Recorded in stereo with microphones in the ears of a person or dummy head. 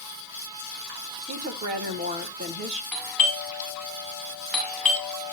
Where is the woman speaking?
35° right (ahead or behind), 1.2 m.